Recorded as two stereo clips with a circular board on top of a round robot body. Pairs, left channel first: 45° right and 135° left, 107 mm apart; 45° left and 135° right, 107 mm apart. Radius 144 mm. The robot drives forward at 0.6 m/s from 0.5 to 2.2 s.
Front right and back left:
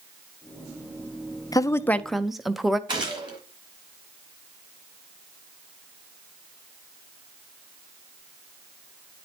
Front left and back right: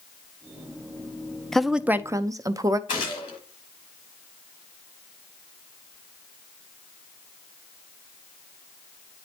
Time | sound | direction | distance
1.5 | a woman speaking | 35° right | 0.6 m
2.9 | a gunshot | 90° left | 1.1 m